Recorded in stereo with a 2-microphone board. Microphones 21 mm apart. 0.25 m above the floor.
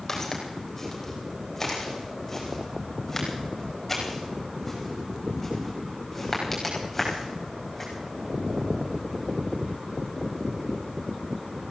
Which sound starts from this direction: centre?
Footsteps, at 0.1 s.